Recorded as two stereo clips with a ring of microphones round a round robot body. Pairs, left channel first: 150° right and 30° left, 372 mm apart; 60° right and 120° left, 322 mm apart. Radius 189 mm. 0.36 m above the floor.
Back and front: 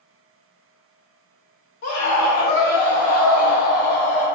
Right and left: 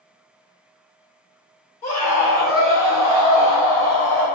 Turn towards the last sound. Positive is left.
turn(degrees=-115)